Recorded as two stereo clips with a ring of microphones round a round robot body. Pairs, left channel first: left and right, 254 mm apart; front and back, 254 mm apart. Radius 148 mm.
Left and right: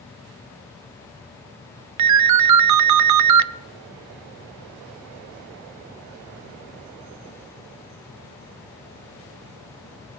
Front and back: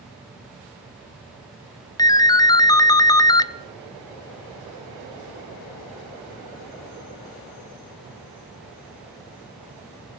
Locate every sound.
2.0 s a ringtone: 75° right, 0.5 m